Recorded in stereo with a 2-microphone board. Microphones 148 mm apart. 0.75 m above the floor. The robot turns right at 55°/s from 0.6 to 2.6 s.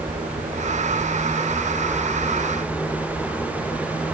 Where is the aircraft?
70° right; by 4.2 s 40° left.